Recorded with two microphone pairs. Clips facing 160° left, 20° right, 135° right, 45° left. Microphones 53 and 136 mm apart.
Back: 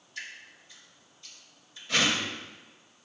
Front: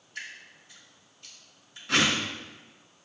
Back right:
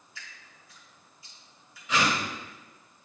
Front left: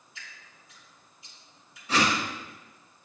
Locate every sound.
0.1 s dripping: 20° right, 3.5 m
1.9 s a whoosh: 5° right, 2 m